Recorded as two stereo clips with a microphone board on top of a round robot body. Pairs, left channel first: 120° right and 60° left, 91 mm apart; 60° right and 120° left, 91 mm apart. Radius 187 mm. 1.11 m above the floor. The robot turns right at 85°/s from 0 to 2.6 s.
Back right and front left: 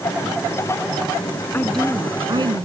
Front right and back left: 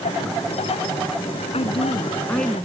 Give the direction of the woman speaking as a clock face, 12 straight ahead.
2 o'clock.